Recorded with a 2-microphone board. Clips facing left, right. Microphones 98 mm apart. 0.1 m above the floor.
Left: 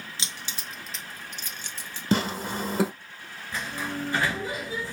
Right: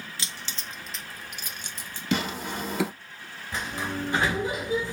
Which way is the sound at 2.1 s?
35° left (ahead or behind).